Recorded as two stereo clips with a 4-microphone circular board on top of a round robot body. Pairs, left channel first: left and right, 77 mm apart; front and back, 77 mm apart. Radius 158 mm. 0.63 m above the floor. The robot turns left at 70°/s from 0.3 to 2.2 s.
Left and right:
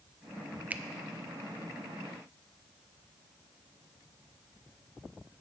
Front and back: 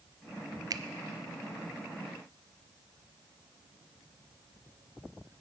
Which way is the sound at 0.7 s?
155° right.